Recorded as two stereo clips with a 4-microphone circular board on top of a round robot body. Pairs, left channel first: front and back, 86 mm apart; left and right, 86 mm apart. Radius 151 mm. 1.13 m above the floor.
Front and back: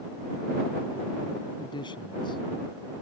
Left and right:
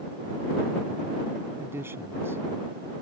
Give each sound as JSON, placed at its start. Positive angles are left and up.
{"t": 1.6, "sound": "a man speaking", "azimuth_deg": -25}